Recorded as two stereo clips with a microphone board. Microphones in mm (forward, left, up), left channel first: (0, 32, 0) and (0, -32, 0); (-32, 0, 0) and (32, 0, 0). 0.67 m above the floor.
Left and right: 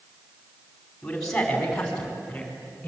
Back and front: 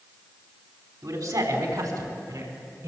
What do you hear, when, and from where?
1.0 s a man speaking: 5° left, 5.5 m; by 2.9 s 15° left, 7.5 m